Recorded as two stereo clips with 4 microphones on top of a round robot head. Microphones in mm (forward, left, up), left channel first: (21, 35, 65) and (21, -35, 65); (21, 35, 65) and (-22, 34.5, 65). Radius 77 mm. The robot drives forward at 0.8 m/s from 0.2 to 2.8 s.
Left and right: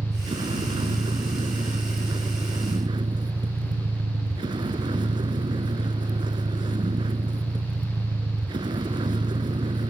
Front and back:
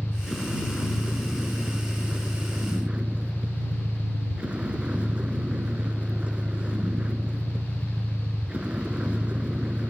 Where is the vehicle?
90° right; by 9.9 s 110° right.